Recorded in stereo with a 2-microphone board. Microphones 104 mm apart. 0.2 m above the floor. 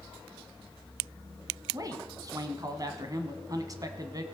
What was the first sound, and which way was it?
A man speaking, 35° right (ahead or behind).